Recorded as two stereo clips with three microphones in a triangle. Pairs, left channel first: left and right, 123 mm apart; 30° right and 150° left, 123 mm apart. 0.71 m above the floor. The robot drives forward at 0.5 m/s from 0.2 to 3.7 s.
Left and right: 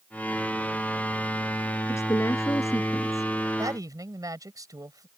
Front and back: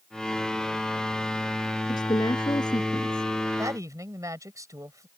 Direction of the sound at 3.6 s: 150° right.